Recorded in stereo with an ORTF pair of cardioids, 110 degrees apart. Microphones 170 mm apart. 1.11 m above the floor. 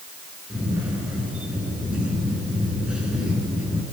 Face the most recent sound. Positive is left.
turn(degrees=-5)